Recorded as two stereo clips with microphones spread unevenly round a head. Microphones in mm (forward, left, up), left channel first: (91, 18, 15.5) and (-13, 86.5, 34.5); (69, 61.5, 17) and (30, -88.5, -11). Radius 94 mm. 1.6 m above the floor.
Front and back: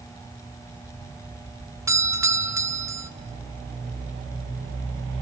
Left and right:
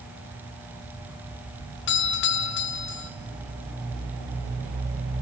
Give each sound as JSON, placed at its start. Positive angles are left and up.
{"t": 1.9, "sound": "a doorbell", "azimuth_deg": 75, "distance_m": 1.2}